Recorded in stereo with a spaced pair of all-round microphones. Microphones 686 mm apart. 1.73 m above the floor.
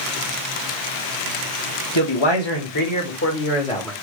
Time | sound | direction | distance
1.9 | a man speaking | 40° left (ahead or behind) | 1.5 m